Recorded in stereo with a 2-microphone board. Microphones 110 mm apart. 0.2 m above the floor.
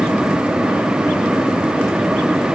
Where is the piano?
No piano in this recording.